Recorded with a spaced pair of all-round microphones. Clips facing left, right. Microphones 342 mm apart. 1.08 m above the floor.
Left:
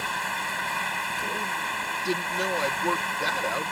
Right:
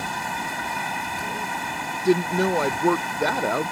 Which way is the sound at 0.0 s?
55° right (ahead or behind).